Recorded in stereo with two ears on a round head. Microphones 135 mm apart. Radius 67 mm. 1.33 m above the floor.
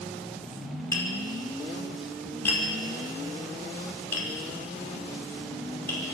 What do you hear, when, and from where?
0.9 s tapping: 15° left (ahead or behind), 5 m